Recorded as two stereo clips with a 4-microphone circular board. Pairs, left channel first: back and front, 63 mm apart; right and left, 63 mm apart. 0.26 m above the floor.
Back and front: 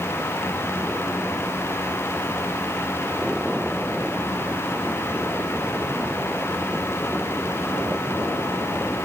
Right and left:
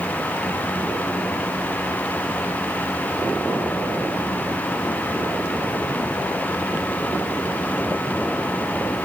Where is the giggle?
No giggle in this recording.